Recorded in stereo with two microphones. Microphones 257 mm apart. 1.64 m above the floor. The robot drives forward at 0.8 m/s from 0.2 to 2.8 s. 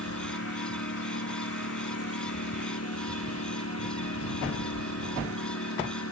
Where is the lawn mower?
65° left (ahead or behind); by 6.1 s 70° left (ahead or behind).